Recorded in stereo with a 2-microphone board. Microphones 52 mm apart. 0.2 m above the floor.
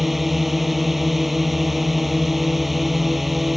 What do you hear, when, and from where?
0.0 s a drone: 5° right (ahead or behind)